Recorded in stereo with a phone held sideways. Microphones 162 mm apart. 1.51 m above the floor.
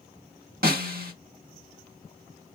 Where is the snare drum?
70° right (ahead or behind), 1.6 m.